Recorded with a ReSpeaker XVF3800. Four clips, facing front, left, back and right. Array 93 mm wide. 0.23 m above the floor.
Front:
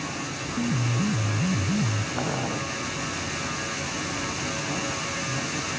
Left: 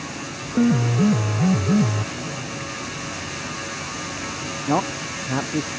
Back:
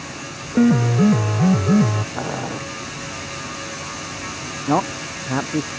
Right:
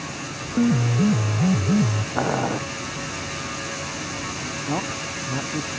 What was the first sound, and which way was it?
A piano, 170° left.